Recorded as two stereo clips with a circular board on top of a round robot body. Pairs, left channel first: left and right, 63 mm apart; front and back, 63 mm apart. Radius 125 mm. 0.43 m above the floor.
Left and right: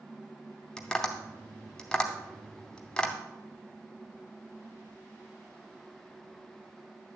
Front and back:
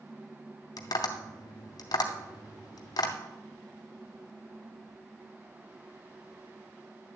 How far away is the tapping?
About 0.7 m.